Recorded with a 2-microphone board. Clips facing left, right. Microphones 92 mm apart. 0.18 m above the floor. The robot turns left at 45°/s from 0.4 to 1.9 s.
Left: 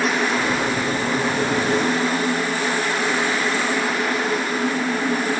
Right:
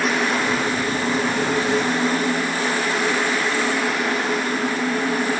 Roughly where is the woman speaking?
I don't hear a woman speaking.